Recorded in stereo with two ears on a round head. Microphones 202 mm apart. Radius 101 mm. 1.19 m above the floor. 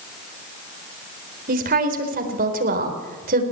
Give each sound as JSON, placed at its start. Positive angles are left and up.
{"t": 1.5, "sound": "a woman speaking", "side_deg": -40, "distance_m": 4.0}